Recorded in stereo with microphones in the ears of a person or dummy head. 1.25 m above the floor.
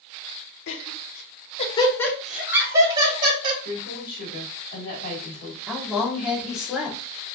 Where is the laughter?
70° left (ahead or behind), 1.3 m; by 3.5 s 35° right (ahead or behind), 1.6 m.